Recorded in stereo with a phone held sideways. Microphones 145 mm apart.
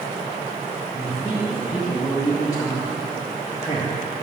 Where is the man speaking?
25° left (ahead or behind), 1.2 m.